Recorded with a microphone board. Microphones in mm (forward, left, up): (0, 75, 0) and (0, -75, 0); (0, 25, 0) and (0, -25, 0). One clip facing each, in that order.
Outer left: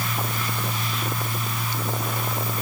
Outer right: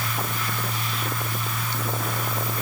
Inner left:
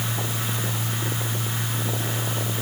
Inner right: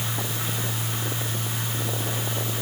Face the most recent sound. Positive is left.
No sound to turn to.